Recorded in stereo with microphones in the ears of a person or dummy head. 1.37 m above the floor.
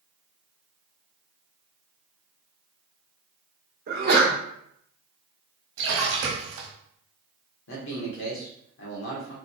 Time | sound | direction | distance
3.9 | a sneeze | 50° right (ahead or behind) | 1.4 m
5.8 | a splash | 65° right (ahead or behind) | 1.4 m
7.7 | a man speaking | 75° left (ahead or behind) | 1.3 m